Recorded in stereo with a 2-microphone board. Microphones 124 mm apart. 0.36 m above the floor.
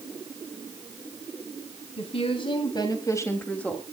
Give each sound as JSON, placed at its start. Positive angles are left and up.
{"t": 2.0, "sound": "a woman speaking", "side_deg": 55, "distance_m": 3.0}